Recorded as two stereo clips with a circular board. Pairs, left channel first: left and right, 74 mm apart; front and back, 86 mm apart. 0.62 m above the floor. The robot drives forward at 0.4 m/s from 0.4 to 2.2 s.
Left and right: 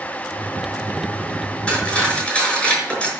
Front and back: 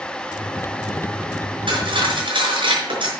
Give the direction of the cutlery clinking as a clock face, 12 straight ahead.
7 o'clock.